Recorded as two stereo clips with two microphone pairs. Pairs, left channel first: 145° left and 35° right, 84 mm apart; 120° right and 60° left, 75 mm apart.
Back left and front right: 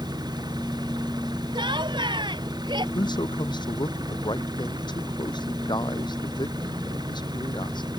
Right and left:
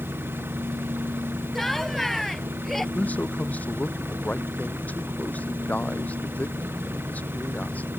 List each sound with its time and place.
0.0 s an engine running: straight ahead
1.6 s laughter: 35° right
3.0 s a man speaking: 170° left